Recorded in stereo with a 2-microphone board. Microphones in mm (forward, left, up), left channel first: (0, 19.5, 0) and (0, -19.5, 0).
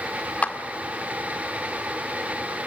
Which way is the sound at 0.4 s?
45° left (ahead or behind).